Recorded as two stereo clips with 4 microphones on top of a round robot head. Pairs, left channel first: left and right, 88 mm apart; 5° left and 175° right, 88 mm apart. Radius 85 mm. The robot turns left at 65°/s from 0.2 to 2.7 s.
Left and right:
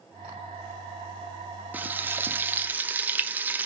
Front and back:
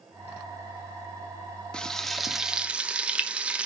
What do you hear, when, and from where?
1.7 s frying: 55° right, 0.7 m; by 3.7 s 120° right, 0.7 m